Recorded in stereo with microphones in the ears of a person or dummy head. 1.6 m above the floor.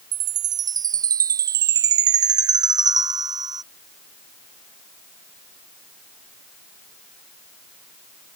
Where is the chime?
20° right (ahead or behind).